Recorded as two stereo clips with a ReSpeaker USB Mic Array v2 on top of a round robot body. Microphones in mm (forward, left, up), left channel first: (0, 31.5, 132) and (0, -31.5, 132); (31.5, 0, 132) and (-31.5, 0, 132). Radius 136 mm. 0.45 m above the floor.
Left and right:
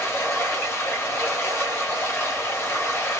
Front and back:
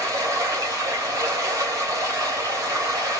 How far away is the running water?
About 2.5 m.